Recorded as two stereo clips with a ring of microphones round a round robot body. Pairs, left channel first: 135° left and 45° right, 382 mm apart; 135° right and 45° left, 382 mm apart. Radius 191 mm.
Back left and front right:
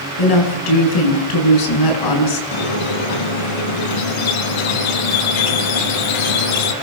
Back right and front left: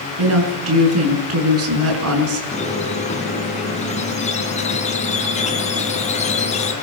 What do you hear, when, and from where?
0.2 s a woman speaking: 100° left, 7 m
2.5 s a squeak: 150° left, 3 m